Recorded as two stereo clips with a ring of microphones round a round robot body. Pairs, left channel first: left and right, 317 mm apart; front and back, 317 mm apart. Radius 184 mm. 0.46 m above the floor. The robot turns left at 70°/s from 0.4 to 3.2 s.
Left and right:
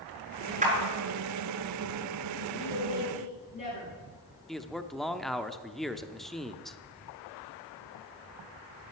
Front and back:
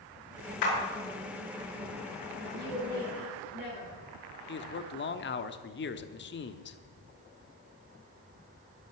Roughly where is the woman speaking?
Left.